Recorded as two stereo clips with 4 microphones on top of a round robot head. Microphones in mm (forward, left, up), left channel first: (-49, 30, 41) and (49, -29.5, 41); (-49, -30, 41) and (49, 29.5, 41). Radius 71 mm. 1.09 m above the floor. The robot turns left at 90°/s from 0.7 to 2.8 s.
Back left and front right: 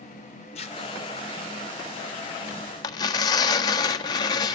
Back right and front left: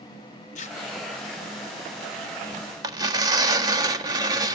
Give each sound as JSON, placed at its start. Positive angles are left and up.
{"t": 0.6, "sound": "tearing paper", "azimuth_deg": -175, "distance_m": 1.7}
{"t": 2.8, "sound": "tearing paper", "azimuth_deg": 90, "distance_m": 1.4}